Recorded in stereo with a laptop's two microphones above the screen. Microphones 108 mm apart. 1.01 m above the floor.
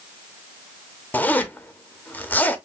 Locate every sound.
1.1 s a zipper: 15° left (ahead or behind), 0.8 m